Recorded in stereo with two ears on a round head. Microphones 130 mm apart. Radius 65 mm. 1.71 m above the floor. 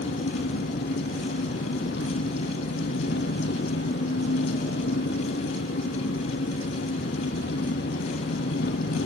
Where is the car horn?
I don't hear a car horn.